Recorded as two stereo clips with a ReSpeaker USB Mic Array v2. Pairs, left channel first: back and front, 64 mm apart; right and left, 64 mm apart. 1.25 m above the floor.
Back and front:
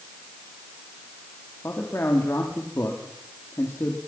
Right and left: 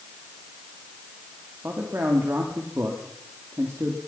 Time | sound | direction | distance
1.6 | a man speaking | 140° left | 3 m